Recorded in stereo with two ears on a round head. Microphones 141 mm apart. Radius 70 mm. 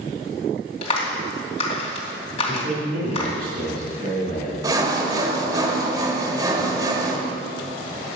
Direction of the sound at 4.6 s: 25° right (ahead or behind).